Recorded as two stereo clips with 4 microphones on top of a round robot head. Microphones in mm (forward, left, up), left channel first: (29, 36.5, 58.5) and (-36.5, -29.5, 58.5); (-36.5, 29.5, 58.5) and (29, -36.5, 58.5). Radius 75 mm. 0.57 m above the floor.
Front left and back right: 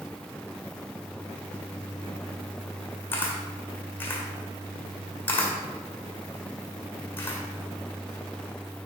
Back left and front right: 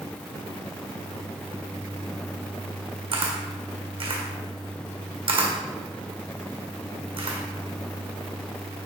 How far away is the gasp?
I don't hear a gasp.